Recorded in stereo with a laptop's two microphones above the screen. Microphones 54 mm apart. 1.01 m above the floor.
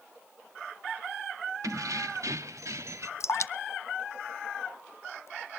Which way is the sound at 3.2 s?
60° left (ahead or behind).